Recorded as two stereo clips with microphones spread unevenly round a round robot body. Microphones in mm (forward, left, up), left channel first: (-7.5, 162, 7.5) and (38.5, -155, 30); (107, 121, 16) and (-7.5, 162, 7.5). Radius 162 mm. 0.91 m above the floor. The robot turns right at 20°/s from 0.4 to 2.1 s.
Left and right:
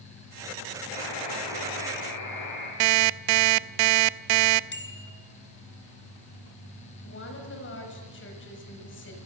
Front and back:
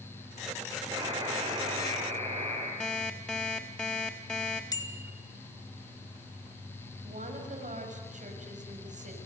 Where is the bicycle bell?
40° left, 2.5 m.